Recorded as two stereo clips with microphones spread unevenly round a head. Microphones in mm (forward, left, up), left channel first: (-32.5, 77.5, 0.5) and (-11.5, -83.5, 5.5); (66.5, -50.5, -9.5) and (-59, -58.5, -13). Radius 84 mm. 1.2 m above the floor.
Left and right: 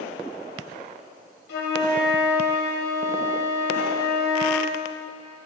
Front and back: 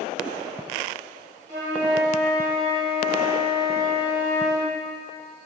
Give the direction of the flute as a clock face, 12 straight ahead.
8 o'clock.